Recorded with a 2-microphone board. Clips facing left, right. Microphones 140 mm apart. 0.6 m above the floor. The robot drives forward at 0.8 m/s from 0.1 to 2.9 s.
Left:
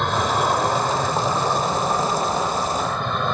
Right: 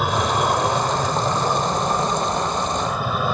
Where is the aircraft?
5° right (ahead or behind).